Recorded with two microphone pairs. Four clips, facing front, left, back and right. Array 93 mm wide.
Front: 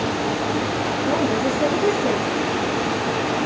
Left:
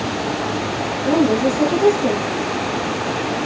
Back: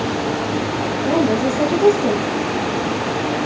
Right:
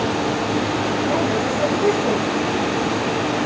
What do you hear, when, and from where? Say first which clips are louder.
1.1 s a woman speaking: left 9 dB, back 4 dB; 135° left, 3 m